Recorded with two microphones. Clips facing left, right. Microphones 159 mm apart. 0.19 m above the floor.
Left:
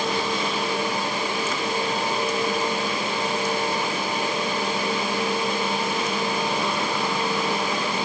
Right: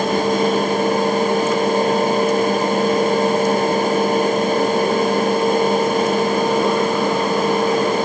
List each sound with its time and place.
Only background noise.